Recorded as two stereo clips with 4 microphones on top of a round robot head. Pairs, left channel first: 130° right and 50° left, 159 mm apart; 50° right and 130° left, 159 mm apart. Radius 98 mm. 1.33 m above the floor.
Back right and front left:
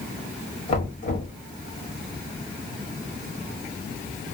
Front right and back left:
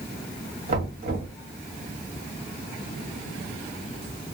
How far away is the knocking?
About 1.7 m.